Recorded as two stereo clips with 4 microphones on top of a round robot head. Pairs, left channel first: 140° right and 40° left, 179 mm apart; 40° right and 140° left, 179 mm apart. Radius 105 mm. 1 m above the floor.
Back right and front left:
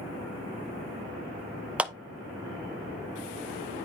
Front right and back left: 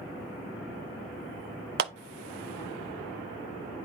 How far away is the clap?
About 0.8 m.